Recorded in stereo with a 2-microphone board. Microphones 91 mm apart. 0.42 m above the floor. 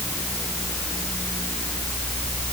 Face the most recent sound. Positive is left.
No sound to turn to.